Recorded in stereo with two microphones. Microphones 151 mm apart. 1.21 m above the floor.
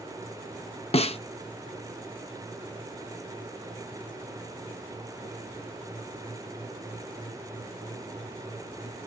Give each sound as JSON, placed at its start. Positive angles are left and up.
{"t": 0.9, "sound": "a snare drum", "side_deg": 40, "distance_m": 0.5}